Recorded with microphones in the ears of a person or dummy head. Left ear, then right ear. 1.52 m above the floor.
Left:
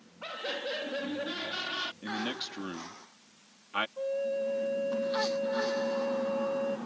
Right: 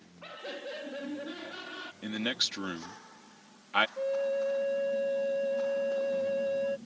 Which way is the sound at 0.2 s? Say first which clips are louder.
Left 5 dB; 15° left (ahead or behind).